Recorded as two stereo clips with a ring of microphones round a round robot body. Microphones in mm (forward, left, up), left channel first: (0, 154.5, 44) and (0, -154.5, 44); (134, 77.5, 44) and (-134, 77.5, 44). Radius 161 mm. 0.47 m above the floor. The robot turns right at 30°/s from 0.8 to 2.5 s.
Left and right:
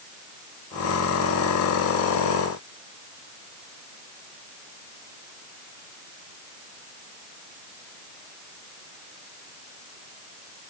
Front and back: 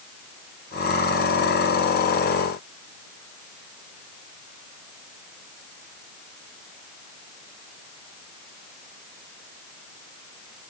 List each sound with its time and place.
Only background noise.